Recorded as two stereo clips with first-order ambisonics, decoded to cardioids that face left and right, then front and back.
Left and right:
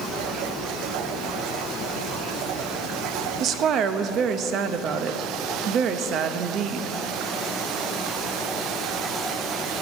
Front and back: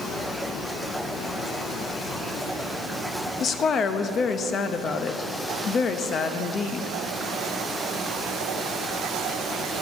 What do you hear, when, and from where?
3.4 s a woman speaking: 55° right, 0.5 m